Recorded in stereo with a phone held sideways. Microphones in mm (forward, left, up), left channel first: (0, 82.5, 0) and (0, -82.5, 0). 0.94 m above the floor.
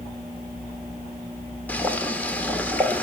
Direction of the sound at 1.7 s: 10° left (ahead or behind).